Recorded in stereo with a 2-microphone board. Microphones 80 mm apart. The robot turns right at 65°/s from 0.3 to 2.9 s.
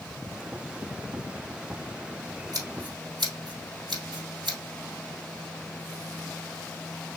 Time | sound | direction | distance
2.5 | scissors | 45° right (ahead or behind) | 3.5 m